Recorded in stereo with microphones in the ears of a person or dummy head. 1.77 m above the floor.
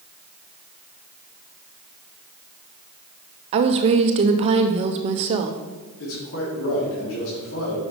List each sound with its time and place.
3.5 s a woman speaking: 35° right (ahead or behind), 0.6 m
6.0 s a man speaking: 80° left, 3 m